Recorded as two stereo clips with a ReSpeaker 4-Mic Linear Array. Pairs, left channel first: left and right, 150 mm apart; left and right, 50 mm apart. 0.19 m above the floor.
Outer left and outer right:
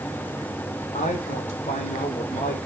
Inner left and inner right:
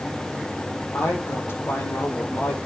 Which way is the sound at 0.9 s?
55° left (ahead or behind).